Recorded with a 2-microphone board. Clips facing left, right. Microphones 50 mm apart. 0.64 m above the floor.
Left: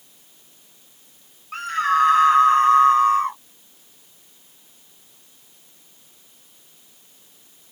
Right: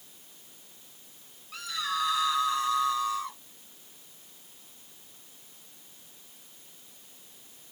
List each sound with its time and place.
1.5 s a scream: 45° left (ahead or behind)